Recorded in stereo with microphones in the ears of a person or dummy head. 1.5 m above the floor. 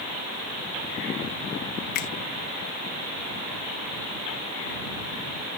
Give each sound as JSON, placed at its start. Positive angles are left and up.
{"t": 1.9, "sound": "a finger snap", "side_deg": 50}